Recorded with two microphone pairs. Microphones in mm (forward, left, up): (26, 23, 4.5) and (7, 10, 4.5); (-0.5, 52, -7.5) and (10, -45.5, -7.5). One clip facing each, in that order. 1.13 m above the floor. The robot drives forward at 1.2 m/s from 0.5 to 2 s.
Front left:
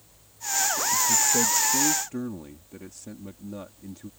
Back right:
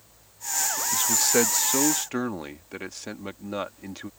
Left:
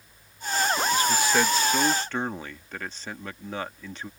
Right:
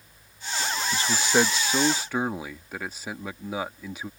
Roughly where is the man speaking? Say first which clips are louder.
Back right 2 dB, right 3 dB; behind right.